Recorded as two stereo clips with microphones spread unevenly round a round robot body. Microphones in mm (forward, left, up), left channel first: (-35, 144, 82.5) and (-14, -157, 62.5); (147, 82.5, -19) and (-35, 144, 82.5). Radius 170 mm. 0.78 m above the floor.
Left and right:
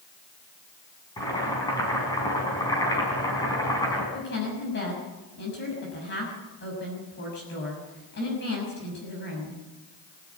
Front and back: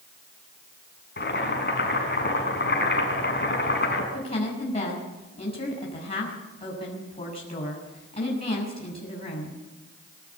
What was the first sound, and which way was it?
Boiling, 15° left.